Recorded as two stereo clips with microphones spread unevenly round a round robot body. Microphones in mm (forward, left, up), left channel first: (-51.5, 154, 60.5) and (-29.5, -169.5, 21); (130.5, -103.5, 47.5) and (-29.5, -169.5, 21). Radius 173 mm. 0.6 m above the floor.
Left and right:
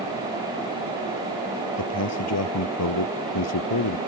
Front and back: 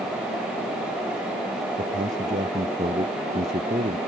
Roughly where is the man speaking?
Behind left.